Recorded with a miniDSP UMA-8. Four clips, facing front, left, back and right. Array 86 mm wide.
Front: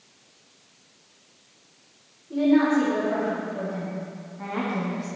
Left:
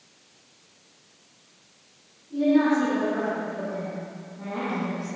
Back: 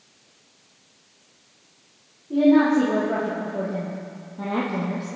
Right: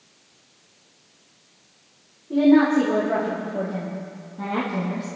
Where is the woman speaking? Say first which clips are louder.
Right 5 dB, back 3 dB; 115° right, 5.5 m; by 5.1 s 155° right, 4.5 m.